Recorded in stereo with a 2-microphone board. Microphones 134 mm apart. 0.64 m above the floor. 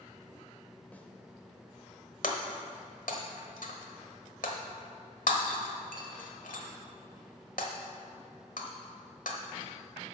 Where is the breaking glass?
90° left, 1.3 m.